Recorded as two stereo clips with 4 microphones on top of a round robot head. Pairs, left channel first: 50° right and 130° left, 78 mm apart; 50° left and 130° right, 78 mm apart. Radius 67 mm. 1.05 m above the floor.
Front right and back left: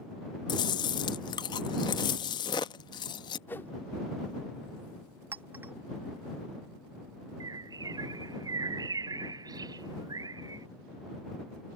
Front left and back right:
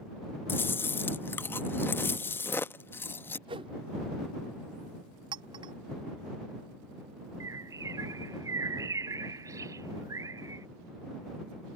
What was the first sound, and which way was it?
Chewing, 15° right.